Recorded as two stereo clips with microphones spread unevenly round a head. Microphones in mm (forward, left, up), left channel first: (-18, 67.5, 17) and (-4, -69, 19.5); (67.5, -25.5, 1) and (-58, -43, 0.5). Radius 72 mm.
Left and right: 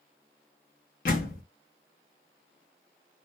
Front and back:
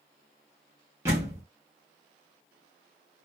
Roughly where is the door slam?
Behind left.